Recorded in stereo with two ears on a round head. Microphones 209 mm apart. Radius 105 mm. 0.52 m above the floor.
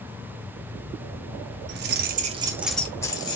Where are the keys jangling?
50° right (ahead or behind), 0.7 m; by 3.4 s 20° left (ahead or behind), 0.9 m.